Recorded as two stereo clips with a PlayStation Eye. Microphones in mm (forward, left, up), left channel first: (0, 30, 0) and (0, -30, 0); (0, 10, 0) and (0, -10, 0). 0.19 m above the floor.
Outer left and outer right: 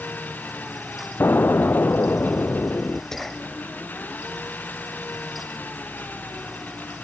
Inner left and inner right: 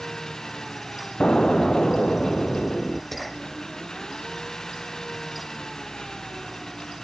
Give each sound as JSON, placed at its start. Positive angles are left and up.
{"t": 0.0, "sound": "an engine running", "side_deg": 35}
{"t": 1.2, "sound": "an explosion", "side_deg": 40}
{"t": 3.1, "sound": "whispering", "side_deg": 10}